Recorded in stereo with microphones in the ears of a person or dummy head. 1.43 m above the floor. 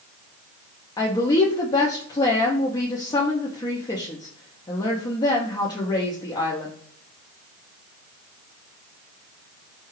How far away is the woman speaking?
About 0.6 m.